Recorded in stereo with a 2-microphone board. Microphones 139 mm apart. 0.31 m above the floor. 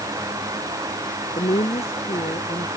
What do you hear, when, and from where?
1.4 s a woman speaking: 45° left (ahead or behind); by 2.7 s 40° left (ahead or behind)